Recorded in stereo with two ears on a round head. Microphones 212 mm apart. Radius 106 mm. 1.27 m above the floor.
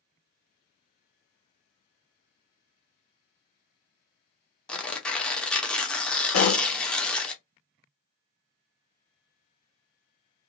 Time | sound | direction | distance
4.7 | tearing paper | 5° left (ahead or behind) | 0.8 m
6.3 | a pop | 55° left (ahead or behind) | 1.4 m